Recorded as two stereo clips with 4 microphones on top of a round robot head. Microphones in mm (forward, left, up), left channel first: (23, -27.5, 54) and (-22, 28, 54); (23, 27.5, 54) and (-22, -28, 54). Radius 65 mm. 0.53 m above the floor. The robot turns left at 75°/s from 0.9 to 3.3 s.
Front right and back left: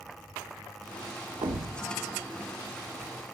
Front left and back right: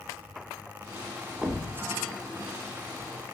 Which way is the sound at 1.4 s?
155° left.